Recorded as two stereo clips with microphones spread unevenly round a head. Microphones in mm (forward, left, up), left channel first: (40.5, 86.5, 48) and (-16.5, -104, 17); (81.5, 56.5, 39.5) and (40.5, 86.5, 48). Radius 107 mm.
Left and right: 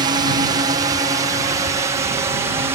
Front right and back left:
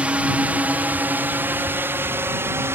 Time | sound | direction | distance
0.0 | a drone | 150° right | ?